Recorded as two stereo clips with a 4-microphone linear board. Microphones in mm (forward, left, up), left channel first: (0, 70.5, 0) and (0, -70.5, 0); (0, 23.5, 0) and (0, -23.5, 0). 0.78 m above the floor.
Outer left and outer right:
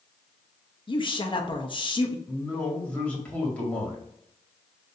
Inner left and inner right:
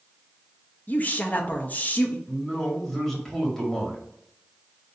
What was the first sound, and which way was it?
A woman speaking, 35° left (ahead or behind).